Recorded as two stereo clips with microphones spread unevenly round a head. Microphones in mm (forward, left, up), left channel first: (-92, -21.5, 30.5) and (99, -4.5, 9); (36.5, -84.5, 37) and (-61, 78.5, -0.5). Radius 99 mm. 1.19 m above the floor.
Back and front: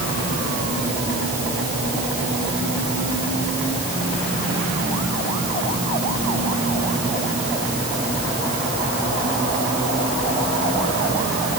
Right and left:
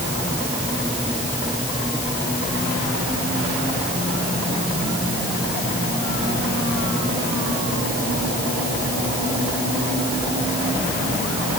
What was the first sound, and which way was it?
Only background noise.